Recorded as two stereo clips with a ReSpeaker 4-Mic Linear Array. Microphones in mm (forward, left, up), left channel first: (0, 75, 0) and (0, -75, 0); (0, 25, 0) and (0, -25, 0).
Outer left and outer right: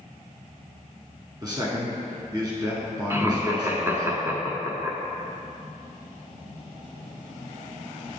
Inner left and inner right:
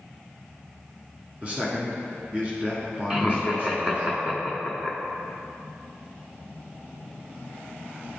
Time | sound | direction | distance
1.4 | a man speaking | 30° right (ahead or behind) | 1.3 m
3.1 | laughter | 20° right (ahead or behind) | 1.1 m